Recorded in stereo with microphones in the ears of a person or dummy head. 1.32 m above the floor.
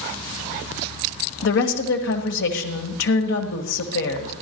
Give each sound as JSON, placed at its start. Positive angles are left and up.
{"t": 1.4, "sound": "a woman speaking", "side_deg": 65, "distance_m": 1.4}